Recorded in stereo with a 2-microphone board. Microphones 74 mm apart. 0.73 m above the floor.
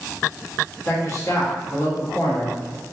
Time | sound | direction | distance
0.8 | a man speaking | 40° left (ahead or behind) | 1.3 m